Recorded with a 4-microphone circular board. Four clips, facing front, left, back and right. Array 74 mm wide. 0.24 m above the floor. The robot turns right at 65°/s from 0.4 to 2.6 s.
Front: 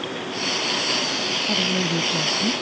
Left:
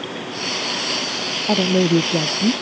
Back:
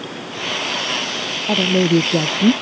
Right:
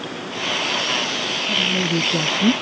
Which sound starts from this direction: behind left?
A woman speaking, at 1.5 s.